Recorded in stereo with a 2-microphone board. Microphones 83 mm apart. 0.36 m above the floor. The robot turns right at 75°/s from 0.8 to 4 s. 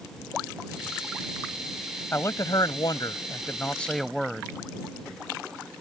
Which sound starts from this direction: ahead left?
A man speaking, at 2.1 s.